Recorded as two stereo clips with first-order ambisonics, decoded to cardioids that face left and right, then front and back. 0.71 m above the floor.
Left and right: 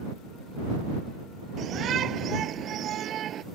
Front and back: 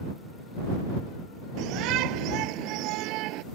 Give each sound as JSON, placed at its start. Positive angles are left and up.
{"t": 1.6, "sound": "a shout", "azimuth_deg": -145}